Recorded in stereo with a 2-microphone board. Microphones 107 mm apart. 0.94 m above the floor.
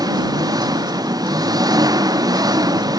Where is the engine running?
35° right (ahead or behind).